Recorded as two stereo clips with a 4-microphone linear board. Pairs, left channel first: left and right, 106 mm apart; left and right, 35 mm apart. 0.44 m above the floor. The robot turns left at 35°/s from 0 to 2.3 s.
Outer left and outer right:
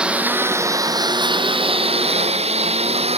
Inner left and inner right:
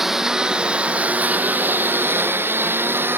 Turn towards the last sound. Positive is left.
turn(degrees=-75)  # may be behind; listen again after turning